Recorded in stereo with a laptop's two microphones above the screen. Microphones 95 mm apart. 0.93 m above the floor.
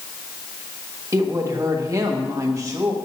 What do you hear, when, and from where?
1.1 s a woman speaking: 35° right (ahead or behind), 1.4 m